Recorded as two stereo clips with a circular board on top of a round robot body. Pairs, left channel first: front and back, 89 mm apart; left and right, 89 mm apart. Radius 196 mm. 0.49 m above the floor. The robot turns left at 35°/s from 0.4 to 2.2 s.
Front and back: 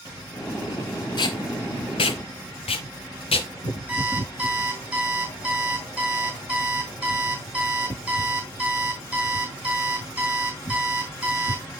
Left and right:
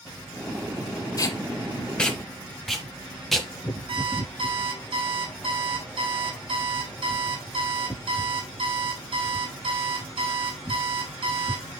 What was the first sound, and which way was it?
Tape being pulled, 40° left.